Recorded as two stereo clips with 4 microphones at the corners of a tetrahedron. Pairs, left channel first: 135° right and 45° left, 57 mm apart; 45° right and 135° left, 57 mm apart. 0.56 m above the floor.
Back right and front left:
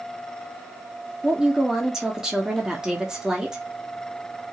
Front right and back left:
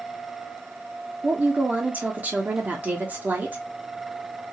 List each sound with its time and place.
1.2 s a woman speaking: 115° left, 1.0 m